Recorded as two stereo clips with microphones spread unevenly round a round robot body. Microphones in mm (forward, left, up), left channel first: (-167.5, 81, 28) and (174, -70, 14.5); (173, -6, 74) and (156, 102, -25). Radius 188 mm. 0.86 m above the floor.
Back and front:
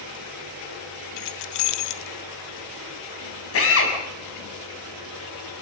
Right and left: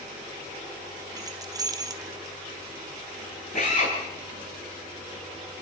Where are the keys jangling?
110° left, 0.8 m.